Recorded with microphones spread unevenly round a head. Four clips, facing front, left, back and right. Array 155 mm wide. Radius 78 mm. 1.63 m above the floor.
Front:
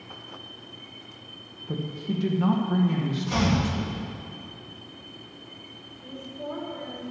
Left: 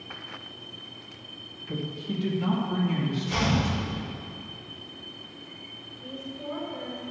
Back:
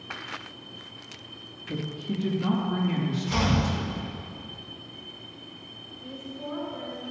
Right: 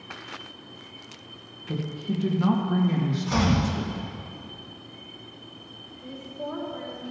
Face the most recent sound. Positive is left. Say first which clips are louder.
# right 2 dB, front 1 dB
turn(degrees=-55)